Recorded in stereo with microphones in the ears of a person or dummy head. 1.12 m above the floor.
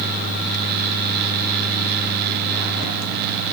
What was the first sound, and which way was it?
Only background noise.